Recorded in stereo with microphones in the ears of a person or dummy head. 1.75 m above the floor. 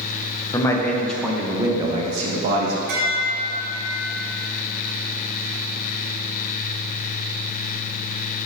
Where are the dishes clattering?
60° right (ahead or behind), 1.7 m.